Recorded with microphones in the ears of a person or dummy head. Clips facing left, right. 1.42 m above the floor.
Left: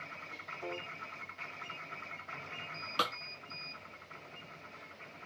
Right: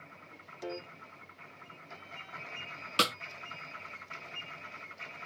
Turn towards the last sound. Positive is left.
turn(degrees=-35)  # may be behind; listen again after turning